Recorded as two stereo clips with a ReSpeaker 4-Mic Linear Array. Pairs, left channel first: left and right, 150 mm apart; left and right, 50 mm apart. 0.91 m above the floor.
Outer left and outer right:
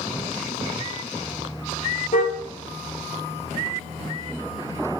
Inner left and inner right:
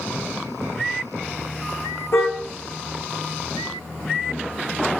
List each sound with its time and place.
2.1 s a car horn: 60° left (ahead or behind), 8.5 m